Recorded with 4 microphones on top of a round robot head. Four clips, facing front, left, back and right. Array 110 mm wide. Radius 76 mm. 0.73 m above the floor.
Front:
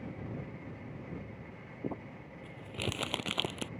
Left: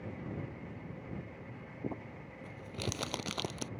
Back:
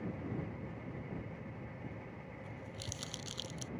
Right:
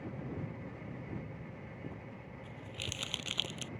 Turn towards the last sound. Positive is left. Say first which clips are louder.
# left 10 dB, front 7 dB
turn(degrees=30)